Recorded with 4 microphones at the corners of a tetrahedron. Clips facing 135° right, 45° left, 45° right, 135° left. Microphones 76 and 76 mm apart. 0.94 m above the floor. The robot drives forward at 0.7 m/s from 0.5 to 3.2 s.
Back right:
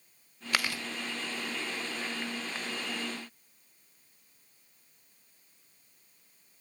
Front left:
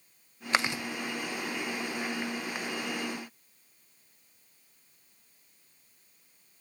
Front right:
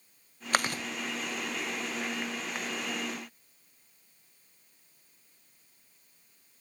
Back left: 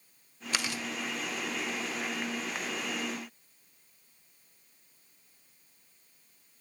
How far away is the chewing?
About 0.9 m.